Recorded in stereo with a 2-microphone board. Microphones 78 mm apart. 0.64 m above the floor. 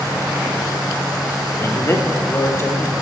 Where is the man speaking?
40° left (ahead or behind), 1.2 m; by 2.9 s 35° left (ahead or behind), 2.5 m.